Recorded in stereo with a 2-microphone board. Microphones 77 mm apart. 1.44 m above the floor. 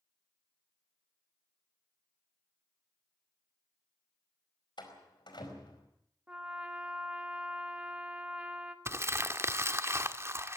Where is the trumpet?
15° right (ahead or behind), 1.8 m.